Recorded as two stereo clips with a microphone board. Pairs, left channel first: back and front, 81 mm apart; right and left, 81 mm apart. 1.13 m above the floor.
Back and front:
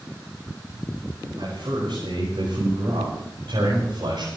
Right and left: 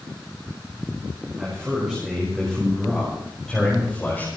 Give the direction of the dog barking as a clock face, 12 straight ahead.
I don't hear a dog barking.